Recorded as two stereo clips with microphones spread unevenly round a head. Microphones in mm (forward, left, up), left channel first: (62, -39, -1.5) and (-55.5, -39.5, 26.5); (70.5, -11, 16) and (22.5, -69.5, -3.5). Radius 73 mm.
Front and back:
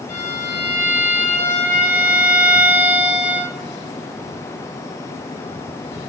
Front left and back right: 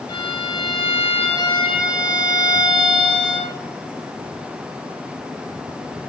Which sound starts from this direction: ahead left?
A violin, at 0.1 s.